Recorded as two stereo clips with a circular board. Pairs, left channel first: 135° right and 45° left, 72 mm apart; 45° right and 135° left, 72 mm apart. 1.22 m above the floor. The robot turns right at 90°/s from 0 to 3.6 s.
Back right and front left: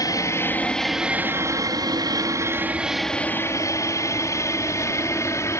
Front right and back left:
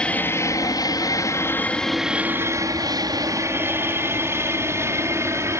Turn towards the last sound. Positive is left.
turn(degrees=180)